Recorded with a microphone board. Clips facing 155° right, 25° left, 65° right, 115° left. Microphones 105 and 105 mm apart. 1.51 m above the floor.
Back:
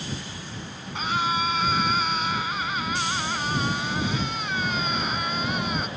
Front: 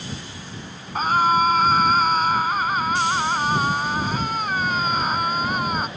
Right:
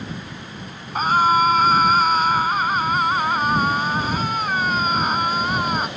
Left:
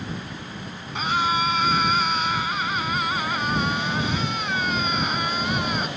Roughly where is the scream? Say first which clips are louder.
Front 8 dB, right 7 dB; ahead.